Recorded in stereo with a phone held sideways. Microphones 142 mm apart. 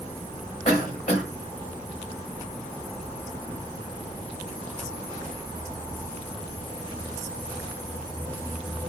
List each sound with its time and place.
0.7 s a cough: 55° left (ahead or behind), 1.3 m